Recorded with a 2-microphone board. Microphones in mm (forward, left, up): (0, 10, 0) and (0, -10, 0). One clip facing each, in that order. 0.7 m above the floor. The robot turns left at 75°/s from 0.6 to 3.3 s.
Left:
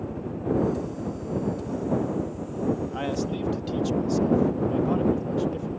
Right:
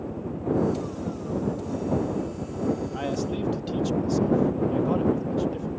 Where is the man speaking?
15° left (ahead or behind); by 5.7 s centre (ahead or behind).